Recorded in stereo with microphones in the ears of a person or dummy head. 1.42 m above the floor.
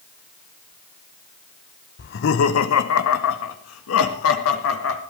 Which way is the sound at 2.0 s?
45° left (ahead or behind).